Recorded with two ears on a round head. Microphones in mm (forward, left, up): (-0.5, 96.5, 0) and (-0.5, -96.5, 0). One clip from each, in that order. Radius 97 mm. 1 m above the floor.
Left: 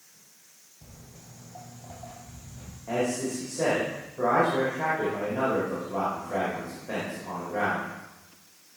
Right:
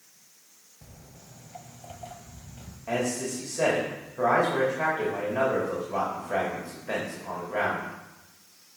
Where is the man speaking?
65° right (ahead or behind), 2.5 m.